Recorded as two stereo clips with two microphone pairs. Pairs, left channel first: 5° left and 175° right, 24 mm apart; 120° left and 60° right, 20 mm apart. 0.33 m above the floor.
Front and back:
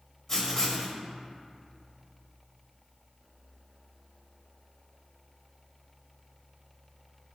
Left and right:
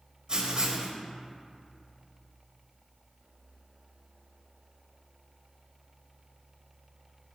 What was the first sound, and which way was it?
Writing, 50° right.